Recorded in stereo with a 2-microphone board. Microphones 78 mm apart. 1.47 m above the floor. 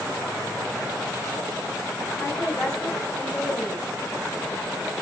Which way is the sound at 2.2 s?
25° left (ahead or behind).